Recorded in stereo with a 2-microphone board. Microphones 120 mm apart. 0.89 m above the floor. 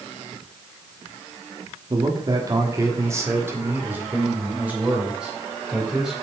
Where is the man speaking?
40° right (ahead or behind), 1.4 m; by 6.1 s 5° right (ahead or behind), 3.5 m.